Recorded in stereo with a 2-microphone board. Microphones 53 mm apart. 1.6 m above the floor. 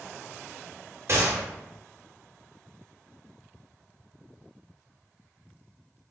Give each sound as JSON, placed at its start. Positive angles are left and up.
{"t": 1.1, "sound": "a gunshot", "side_deg": -55, "distance_m": 0.7}